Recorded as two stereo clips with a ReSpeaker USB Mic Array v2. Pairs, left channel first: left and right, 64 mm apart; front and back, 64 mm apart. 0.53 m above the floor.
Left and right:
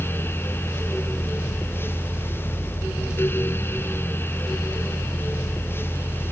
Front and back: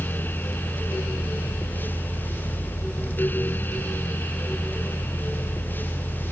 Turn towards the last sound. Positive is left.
No sound to turn to.